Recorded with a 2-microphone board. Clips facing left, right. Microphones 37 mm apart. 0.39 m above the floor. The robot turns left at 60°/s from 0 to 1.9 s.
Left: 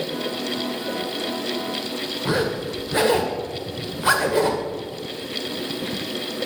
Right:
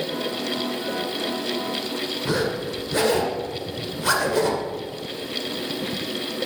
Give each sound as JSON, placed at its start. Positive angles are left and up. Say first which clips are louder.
{"t": 2.2, "sound": "a zipper", "louder": "left 2 dB", "side_deg": 20, "distance_m": 1.6}